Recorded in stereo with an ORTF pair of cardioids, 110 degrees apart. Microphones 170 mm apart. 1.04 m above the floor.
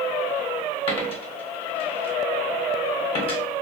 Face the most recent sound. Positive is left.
turn(degrees=40)